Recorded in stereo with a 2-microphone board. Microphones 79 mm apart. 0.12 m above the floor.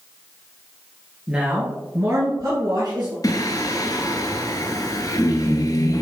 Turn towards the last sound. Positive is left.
turn(degrees=55)  # may be behind; listen again after turning